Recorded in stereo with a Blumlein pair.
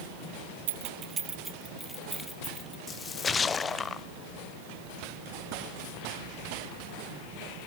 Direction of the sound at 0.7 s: 55° right.